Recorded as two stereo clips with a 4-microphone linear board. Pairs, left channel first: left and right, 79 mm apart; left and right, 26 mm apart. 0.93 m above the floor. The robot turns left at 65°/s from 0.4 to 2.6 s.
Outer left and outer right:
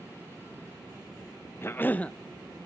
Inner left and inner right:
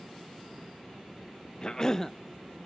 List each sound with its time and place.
1.6 s a cough: 55° left, 0.5 m; by 2.1 s 20° left, 0.5 m